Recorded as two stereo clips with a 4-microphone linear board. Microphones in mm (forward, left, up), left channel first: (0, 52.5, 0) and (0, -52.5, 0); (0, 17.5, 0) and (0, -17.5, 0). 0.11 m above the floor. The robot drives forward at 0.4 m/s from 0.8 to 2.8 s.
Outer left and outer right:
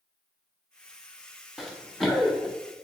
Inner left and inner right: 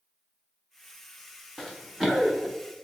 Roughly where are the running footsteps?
Centre.